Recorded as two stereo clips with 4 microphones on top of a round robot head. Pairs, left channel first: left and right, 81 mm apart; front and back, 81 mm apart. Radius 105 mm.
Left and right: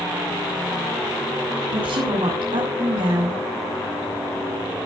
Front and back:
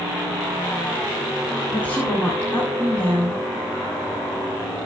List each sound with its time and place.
1.7 s a woman speaking: 75° right, 8 m